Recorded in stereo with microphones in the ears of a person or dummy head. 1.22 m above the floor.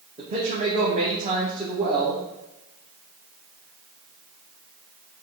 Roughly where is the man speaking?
Right.